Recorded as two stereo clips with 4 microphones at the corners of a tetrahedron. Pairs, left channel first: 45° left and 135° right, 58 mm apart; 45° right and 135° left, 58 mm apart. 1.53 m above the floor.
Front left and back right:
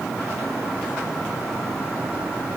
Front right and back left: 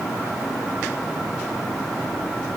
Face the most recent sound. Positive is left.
No sound to turn to.